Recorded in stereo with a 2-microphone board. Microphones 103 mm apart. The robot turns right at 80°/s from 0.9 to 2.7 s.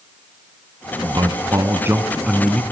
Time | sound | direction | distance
1.0 | a man speaking | 105° right | 1.5 m